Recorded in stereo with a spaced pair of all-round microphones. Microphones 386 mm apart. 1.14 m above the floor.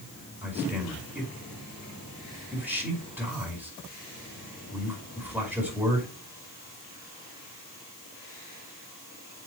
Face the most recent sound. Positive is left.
turn(degrees=-5)  # may be behind; listen again after turning